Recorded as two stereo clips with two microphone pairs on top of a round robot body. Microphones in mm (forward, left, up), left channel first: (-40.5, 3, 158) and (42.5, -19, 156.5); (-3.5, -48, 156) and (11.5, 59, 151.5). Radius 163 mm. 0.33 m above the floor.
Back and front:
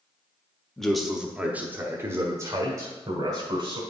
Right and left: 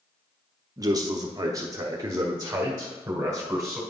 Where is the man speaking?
85° left, 1.1 m; by 3.8 s 15° left, 2.0 m.